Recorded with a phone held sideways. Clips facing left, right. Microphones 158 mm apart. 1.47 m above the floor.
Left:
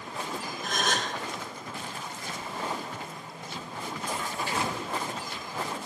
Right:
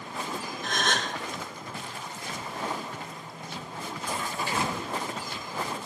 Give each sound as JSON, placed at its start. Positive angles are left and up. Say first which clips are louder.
{"t": 0.6, "sound": "a gasp", "louder": "even", "side_deg": 10, "distance_m": 1.5}